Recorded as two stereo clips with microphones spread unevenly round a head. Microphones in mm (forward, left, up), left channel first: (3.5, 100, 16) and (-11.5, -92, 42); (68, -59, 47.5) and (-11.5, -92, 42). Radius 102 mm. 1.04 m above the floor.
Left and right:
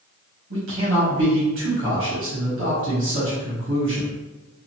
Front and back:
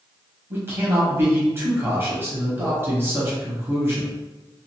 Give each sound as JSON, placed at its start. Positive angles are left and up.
{"t": 0.5, "sound": "a man speaking", "azimuth_deg": -100, "distance_m": 1.4}